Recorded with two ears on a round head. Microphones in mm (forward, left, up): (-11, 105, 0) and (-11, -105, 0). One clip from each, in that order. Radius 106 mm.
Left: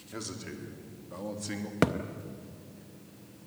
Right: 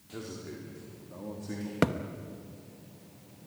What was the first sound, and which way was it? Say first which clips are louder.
A man speaking: left 1 dB; 85° left.